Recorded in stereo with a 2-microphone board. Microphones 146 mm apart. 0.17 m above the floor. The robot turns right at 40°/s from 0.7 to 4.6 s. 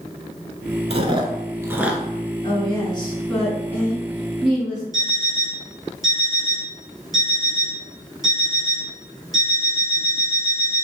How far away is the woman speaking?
About 1.8 m.